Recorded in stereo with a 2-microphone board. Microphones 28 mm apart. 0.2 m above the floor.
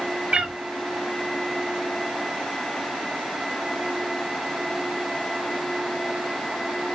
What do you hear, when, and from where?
0.3 s a cat meowing: 45° right (ahead or behind), 0.5 m